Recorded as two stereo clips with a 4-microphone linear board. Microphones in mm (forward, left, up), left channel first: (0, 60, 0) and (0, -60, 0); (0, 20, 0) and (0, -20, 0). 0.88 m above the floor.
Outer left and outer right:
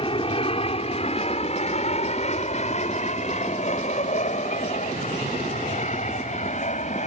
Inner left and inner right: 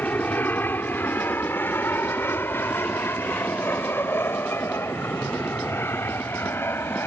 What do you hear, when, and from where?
0.0 s an aircraft: 50° left (ahead or behind); by 7.1 s 75° left (ahead or behind)